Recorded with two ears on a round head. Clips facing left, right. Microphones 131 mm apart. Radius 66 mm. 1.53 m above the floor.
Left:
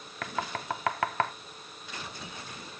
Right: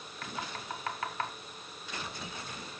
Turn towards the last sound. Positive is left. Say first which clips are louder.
# left 7 dB
turn(degrees=60)  # may be behind; listen again after turning